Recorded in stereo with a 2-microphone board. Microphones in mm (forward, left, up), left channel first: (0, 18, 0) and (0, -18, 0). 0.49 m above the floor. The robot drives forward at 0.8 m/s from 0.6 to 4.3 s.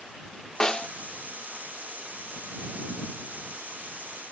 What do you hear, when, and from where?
0.6 s a snare drum: 20° left (ahead or behind), 0.6 m